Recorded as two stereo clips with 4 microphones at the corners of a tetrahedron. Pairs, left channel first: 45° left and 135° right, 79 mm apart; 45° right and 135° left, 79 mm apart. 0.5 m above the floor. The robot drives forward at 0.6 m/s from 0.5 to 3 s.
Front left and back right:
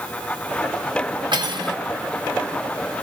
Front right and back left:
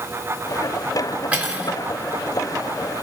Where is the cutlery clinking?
150° right, 3 m; by 1.8 s 155° right, 3.5 m.